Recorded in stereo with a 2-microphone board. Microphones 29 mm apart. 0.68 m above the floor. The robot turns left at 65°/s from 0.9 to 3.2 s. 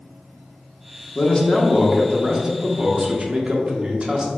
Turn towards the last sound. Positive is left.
turn(degrees=-65)